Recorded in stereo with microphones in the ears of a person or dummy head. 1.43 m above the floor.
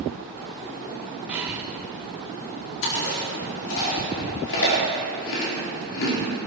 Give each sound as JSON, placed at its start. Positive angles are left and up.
{"t": 1.3, "sound": "breathing", "side_deg": -10, "distance_m": 1.1}
{"t": 2.8, "sound": "chewing", "side_deg": 65, "distance_m": 4.5}